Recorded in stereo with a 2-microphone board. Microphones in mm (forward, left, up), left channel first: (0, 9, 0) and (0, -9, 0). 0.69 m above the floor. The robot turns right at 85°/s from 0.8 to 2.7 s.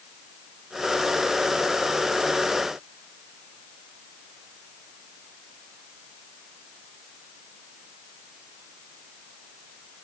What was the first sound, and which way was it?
Only background noise.